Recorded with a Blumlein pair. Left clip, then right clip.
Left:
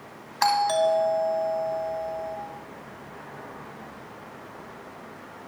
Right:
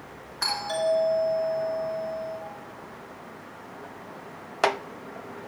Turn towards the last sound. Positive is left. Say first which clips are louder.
# left 5 dB
turn(degrees=65)